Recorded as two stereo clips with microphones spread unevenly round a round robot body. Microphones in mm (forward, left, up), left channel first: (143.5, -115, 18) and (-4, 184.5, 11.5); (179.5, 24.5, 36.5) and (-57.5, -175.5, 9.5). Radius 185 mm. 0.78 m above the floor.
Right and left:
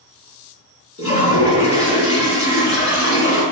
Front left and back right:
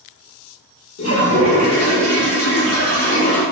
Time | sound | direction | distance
1.0 | a toilet flushing | 5° left | 1.3 m